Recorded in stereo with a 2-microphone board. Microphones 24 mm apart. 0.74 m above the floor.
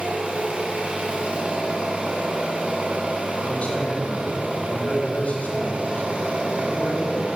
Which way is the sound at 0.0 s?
70° right (ahead or behind).